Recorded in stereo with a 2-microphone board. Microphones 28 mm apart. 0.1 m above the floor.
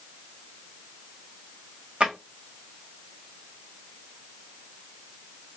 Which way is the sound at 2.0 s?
45° right (ahead or behind).